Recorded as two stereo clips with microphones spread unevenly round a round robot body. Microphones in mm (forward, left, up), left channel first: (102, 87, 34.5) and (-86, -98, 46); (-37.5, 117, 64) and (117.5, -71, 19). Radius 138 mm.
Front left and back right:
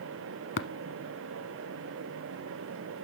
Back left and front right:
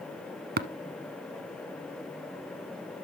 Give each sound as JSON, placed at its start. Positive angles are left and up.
{"t": 0.6, "sound": "tapping", "azimuth_deg": 0, "distance_m": 0.8}